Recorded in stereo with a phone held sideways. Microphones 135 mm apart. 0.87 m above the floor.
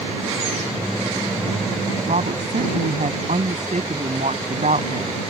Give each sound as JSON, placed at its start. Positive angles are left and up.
{"t": 2.1, "sound": "a woman speaking", "side_deg": -70}